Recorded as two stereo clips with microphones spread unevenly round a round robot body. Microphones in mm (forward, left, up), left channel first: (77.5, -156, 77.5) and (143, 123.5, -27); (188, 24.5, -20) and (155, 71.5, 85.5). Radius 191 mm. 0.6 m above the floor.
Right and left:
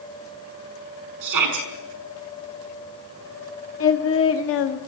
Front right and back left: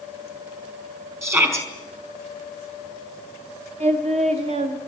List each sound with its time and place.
1.2 s a shout: 70° left, 5 m
3.8 s singing: 150° right, 1.3 m